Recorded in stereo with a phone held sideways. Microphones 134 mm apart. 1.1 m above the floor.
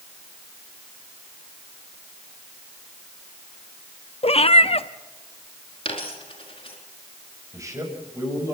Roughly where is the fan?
I don't hear a fan.